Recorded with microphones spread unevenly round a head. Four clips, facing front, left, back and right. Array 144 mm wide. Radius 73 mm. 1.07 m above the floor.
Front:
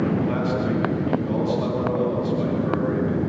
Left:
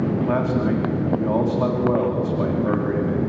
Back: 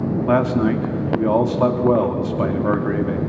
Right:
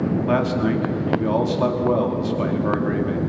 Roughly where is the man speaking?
Behind.